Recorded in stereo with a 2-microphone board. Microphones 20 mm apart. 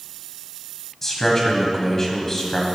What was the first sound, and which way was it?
A man speaking, 20° left (ahead or behind).